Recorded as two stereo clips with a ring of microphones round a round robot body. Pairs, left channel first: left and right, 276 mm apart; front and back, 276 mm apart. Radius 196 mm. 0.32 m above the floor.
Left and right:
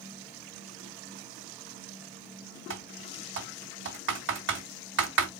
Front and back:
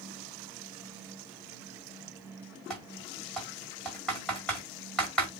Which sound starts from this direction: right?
Typing on a keyboard, at 2.7 s.